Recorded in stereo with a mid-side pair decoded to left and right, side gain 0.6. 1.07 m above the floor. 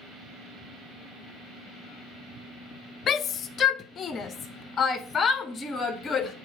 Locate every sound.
3.1 s a shout: 50° left, 0.8 m; by 6.3 s 30° left, 2.5 m